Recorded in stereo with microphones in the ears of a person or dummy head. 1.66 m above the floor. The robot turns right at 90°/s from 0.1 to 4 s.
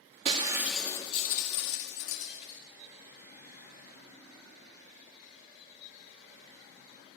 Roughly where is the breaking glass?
Ahead right.